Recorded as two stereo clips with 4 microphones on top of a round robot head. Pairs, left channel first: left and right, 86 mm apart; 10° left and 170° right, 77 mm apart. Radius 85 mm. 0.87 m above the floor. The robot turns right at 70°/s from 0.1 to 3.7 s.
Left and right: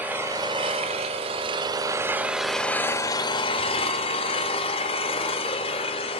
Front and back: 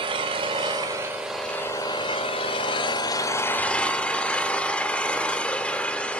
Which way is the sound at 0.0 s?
165° right.